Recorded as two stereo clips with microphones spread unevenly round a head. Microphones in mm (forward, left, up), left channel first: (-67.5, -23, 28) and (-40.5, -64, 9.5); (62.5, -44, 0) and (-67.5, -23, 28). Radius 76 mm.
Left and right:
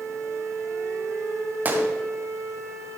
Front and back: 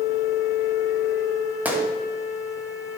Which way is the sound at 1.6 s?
115° right.